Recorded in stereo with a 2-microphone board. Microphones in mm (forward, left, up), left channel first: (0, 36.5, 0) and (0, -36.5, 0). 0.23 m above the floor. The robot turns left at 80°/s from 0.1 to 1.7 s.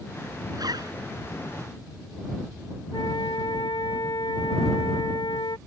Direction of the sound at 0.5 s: 75° right.